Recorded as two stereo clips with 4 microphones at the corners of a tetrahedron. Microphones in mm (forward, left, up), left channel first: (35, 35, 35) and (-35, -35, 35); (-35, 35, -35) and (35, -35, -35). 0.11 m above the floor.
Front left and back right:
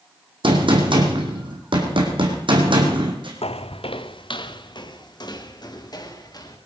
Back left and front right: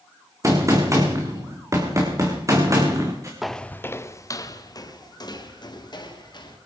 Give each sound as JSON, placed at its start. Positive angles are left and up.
{"t": 0.4, "sound": "a gunshot", "azimuth_deg": -105, "distance_m": 4.0}
{"t": 3.4, "sound": "footsteps", "azimuth_deg": 40, "distance_m": 0.7}